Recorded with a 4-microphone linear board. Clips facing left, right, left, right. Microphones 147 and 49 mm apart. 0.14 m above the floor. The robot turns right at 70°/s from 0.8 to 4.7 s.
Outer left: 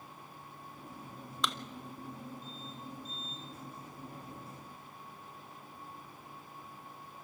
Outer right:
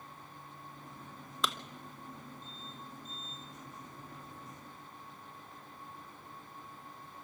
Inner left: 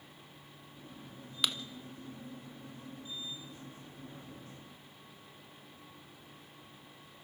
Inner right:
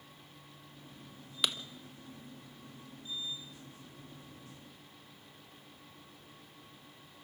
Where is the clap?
Centre (ahead or behind), 0.8 m; by 1.5 s 5° right (ahead or behind), 0.8 m.